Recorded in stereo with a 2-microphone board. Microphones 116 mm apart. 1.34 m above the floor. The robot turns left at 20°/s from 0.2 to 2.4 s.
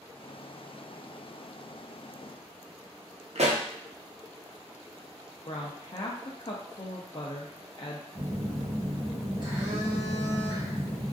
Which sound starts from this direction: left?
A woman speaking, at 5.5 s.